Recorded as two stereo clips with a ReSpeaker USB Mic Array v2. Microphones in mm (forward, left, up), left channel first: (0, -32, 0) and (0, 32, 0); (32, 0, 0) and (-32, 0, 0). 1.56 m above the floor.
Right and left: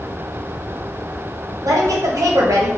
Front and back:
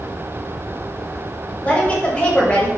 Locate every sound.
1.6 s a woman speaking: 70° left, 1.2 m